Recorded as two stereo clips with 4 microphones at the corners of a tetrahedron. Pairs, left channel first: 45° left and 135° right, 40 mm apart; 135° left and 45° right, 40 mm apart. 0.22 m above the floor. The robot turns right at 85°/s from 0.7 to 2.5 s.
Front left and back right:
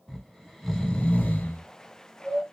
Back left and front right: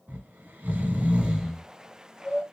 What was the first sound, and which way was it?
Snoring, 35° right.